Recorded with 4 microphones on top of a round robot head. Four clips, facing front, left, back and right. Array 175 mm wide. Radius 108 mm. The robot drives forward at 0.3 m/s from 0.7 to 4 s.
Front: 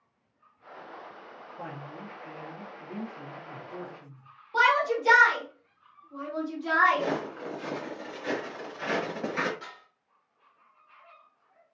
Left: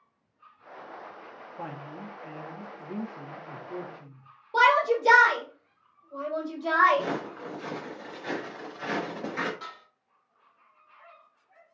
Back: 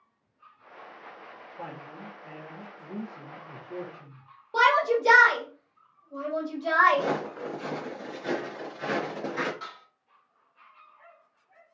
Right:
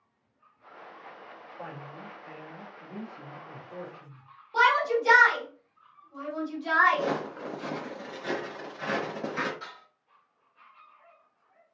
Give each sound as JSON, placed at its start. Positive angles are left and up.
{"t": 1.6, "sound": "a woman speaking", "azimuth_deg": 85, "distance_m": 1.1}
{"t": 4.5, "sound": "a shout", "azimuth_deg": 130, "distance_m": 2.0}
{"t": 6.9, "sound": "footsteps", "azimuth_deg": -145, "distance_m": 2.0}
{"t": 9.6, "sound": "dishes clattering", "azimuth_deg": 130, "distance_m": 2.0}